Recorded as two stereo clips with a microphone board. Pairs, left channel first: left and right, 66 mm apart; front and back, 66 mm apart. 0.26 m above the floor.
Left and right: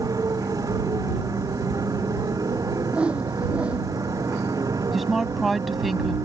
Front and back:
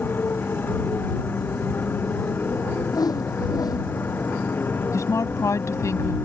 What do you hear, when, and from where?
0.0 s a motorcycle: 60° right
2.9 s a whoosh: 15° right
4.9 s a woman speaking: straight ahead